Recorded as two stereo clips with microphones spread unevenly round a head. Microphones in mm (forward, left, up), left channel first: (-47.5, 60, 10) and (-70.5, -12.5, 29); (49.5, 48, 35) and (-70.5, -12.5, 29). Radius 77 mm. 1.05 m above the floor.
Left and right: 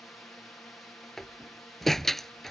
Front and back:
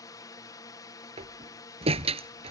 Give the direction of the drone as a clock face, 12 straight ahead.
11 o'clock.